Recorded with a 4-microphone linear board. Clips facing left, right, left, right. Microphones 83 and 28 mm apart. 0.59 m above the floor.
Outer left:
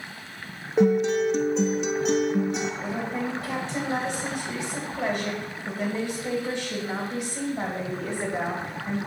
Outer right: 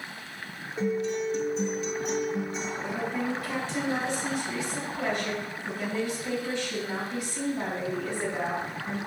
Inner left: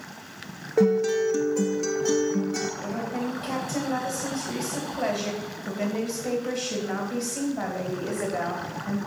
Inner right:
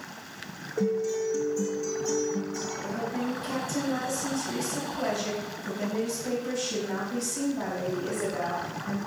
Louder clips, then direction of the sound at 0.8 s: Outer left 8 dB, inner left 6 dB; 75° left (ahead or behind).